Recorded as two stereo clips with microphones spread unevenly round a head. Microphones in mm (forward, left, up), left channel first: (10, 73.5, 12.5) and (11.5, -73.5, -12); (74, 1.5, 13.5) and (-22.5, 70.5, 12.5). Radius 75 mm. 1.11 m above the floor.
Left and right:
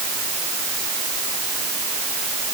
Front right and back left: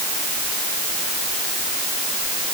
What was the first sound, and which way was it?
Only background noise.